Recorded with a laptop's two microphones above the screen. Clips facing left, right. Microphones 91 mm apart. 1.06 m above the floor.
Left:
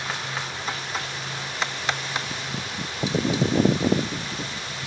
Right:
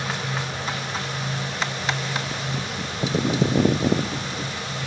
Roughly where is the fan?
Right.